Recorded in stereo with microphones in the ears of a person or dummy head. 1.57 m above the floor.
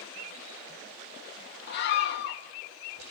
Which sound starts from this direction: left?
A scream, at 1.7 s.